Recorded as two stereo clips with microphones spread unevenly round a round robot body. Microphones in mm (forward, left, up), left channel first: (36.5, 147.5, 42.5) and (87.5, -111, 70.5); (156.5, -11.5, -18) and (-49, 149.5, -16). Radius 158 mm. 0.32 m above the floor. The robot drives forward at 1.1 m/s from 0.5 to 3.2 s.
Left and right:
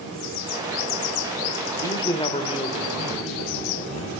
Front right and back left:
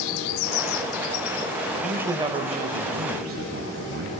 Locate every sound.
1.8 s a man speaking: 50° left, 1.3 m; by 4.1 s 155° left, 1.7 m